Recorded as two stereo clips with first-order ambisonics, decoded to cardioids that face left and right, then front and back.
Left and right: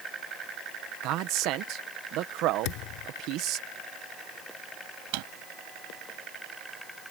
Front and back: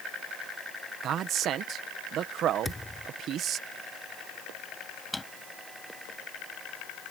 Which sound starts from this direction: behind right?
A man speaking, at 1.0 s.